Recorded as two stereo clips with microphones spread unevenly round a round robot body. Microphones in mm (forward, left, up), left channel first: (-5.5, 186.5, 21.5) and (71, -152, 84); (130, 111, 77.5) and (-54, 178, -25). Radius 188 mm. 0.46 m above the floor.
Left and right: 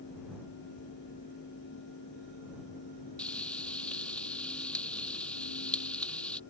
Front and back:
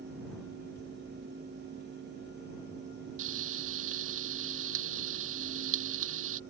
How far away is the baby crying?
No baby crying in this recording.